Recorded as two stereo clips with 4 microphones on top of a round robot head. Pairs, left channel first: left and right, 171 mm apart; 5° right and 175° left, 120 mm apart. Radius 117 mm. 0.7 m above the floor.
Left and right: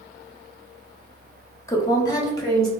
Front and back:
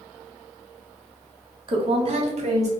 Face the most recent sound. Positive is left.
turn(degrees=160)